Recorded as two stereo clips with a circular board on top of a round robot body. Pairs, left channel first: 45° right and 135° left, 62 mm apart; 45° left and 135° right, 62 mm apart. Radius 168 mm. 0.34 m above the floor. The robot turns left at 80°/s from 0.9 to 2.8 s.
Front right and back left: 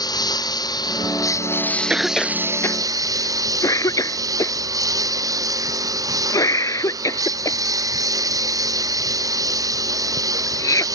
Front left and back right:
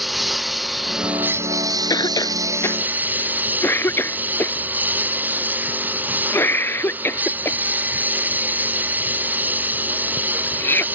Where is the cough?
60° left; by 10.8 s 10° right.